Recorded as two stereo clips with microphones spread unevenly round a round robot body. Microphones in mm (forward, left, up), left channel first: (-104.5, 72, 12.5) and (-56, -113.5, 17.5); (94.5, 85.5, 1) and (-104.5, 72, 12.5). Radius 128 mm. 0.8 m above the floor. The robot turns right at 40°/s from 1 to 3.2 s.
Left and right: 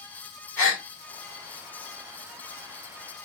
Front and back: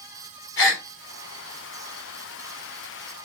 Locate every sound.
0.6 s a gasp: 25° left, 1.8 m